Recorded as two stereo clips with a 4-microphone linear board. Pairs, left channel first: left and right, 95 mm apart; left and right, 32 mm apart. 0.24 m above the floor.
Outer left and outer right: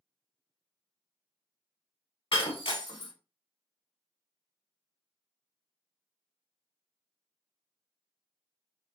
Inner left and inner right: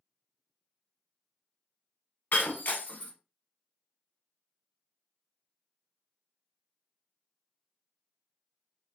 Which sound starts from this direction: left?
Breaking glass, at 2.3 s.